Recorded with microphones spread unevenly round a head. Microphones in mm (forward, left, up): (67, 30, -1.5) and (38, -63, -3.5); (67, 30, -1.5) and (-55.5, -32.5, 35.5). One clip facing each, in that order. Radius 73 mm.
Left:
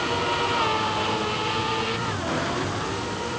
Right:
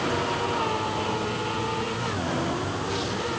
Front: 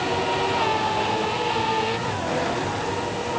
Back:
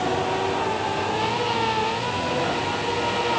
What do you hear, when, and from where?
Only background noise.